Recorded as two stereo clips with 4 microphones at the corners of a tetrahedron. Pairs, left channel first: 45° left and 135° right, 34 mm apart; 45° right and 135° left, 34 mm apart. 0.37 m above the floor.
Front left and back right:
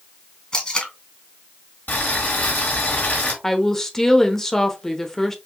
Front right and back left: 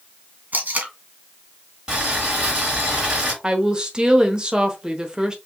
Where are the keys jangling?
No keys jangling in this recording.